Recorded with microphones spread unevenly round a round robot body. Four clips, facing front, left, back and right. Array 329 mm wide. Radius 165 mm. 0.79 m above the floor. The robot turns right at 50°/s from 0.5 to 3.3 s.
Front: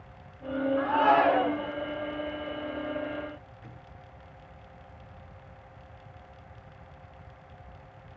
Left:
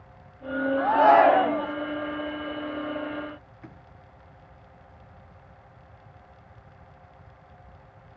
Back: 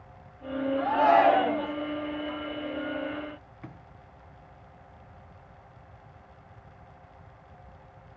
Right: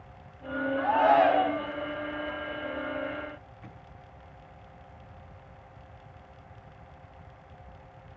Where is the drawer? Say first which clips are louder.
Left 2 dB, back 4 dB; 160° left, 4.5 m.